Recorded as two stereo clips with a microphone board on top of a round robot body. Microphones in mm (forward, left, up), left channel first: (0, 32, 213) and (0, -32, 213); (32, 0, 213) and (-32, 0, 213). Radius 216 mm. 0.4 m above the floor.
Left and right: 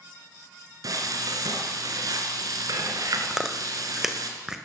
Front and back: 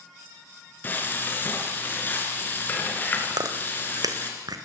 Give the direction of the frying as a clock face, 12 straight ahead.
2 o'clock.